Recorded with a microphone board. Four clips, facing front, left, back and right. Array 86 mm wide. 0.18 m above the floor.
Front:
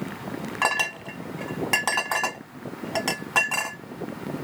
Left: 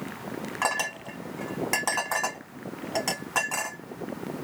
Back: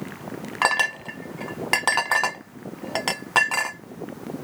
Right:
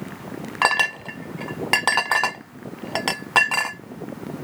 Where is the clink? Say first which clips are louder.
Right 8 dB, back 4 dB; 115° right, 0.7 m.